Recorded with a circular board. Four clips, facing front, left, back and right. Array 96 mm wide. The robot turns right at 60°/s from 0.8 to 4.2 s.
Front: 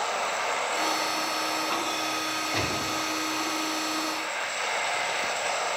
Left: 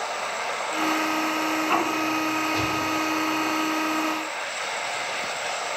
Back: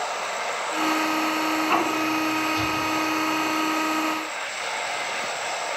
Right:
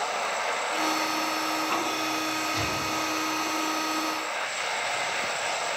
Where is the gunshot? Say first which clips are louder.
Left 4 dB, back 4 dB; 5° right, 6.5 m; by 2.8 s 15° left, 6.5 m.